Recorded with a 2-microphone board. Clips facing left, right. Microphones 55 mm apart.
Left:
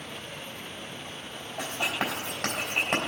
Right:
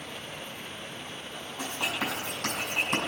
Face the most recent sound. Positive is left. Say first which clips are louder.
# left 2 dB
turn(degrees=80)